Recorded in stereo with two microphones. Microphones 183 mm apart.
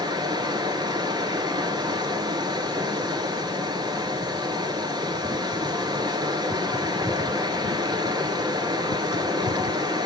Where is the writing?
I don't hear writing.